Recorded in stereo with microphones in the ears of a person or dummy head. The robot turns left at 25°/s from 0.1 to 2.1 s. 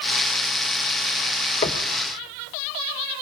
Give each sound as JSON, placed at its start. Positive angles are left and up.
{"t": 1.6, "sound": "knocking", "side_deg": 30, "distance_m": 0.9}